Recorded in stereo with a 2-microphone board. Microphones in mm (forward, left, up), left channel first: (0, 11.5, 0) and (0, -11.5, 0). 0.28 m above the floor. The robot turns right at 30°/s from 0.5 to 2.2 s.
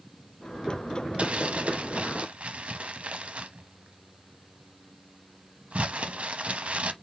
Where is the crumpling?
55° right (ahead or behind), 0.7 m; by 6.9 s 60° right (ahead or behind), 0.7 m.